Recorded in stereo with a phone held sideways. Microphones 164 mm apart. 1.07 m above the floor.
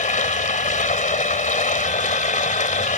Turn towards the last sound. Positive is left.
turn(degrees=55)  # may be behind; listen again after turning